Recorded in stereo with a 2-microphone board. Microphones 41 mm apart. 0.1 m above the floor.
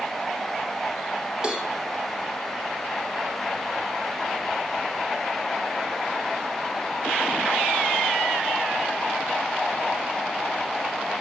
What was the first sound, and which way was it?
A cowbell, 20° right (ahead or behind).